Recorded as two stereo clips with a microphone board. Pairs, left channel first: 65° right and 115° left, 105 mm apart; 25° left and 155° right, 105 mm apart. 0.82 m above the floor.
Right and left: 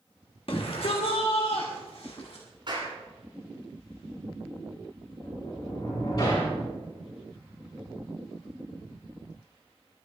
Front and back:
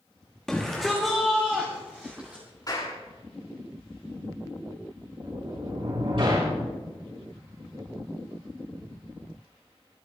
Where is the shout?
65° right, 1.4 m; by 2.4 s 80° right, 2.5 m.